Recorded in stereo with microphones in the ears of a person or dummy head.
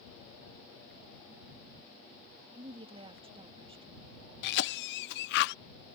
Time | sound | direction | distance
2.5 | a woman speaking | 30° right (ahead or behind) | ?
4.4 | a cough | 60° left (ahead or behind) | ?